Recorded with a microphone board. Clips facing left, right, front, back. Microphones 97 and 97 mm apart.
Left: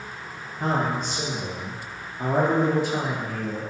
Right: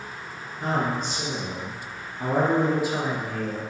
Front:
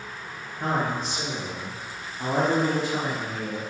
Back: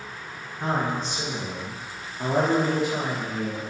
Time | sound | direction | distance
0.6 | a man speaking | 80° left | 1.5 m